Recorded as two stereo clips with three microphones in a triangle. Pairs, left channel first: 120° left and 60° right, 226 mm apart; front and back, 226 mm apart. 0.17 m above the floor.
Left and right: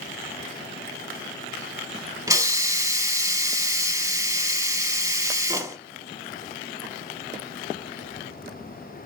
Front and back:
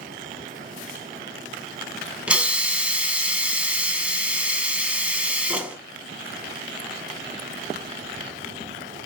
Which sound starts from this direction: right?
A hiss, at 2.3 s.